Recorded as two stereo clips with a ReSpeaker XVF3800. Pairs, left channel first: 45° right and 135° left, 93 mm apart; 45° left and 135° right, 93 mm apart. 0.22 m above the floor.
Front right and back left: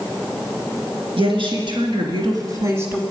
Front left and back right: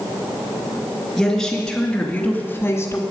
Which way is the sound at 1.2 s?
130° left.